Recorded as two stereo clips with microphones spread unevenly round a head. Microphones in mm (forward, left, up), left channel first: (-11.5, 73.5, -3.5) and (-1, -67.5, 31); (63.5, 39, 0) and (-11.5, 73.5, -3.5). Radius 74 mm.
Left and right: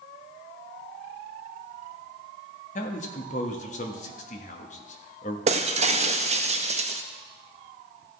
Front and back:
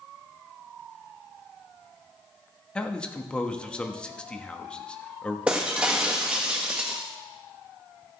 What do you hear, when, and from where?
2.8 s a man speaking: 55° left, 1.3 m
5.5 s breaking glass: 120° right, 0.6 m